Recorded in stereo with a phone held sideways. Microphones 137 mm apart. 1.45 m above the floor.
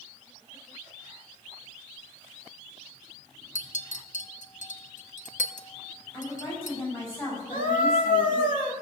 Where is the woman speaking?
40° left (ahead or behind), 7.5 m.